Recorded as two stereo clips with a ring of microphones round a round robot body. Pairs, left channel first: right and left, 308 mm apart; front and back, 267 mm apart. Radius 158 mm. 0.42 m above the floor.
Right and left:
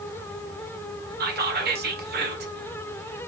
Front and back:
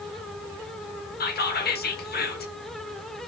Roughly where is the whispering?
Ahead left.